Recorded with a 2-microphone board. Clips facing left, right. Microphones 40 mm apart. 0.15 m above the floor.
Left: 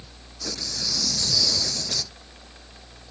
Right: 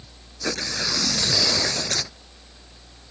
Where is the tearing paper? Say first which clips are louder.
Right 6 dB; 60° right (ahead or behind).